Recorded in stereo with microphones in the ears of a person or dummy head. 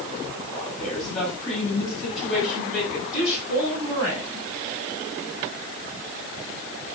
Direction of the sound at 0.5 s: 5° left (ahead or behind).